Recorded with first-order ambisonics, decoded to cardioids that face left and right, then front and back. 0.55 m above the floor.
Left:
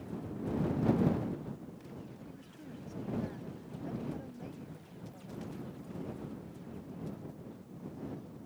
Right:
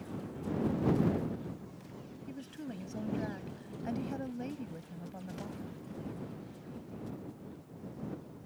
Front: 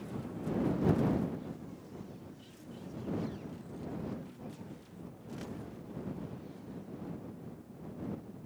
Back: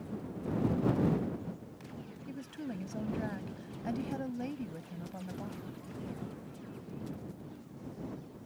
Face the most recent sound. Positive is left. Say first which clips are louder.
# right 6 dB, back 9 dB
turn(degrees=-150)